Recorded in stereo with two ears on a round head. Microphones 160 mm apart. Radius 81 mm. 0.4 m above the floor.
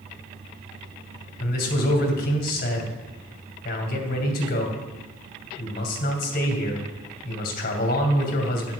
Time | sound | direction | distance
1.4 | a man speaking | 55° left (ahead or behind) | 2.5 m